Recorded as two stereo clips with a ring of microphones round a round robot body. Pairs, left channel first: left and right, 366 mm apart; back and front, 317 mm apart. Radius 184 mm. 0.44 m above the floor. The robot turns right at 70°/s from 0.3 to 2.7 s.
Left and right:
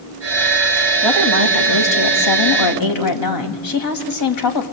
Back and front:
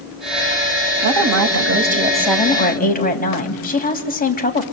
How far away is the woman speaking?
About 3.5 m.